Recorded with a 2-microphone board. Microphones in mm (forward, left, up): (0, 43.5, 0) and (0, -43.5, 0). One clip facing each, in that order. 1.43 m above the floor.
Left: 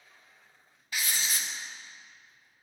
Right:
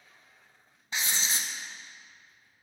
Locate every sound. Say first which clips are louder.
0.9 s writing: right 1 dB; 25° right (ahead or behind), 0.5 m